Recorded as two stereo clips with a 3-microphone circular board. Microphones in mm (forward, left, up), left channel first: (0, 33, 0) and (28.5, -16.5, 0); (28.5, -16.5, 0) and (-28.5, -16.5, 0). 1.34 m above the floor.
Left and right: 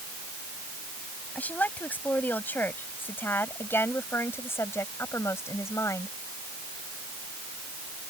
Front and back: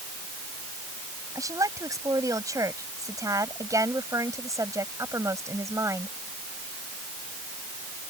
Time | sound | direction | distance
1.4 | a woman speaking | straight behind | ?